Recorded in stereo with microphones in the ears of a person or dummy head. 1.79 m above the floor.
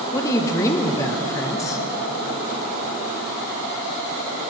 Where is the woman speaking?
20° left (ahead or behind), 1.0 m.